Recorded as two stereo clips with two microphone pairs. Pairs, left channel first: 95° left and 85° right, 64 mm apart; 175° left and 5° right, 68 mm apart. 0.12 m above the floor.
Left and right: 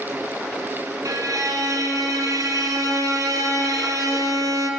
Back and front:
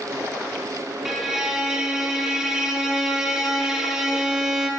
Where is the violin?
90° right, 0.7 m.